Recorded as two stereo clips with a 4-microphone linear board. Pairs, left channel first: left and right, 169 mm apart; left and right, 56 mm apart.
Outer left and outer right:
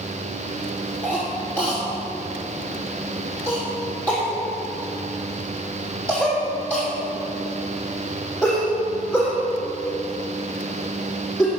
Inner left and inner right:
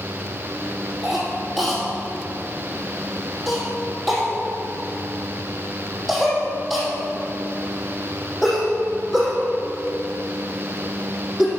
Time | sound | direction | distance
1.0 | a cough | 10° left (ahead or behind) | 4 m